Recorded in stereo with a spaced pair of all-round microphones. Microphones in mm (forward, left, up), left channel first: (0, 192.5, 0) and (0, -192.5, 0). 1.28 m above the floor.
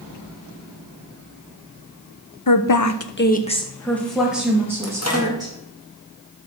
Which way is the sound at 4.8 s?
40° left (ahead or behind).